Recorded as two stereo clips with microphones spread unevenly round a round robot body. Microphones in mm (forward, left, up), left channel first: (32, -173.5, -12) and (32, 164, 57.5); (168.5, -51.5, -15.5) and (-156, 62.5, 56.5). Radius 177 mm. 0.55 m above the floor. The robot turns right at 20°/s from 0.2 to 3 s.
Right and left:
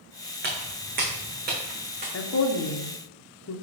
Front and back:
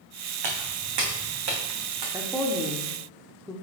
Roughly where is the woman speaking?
Right.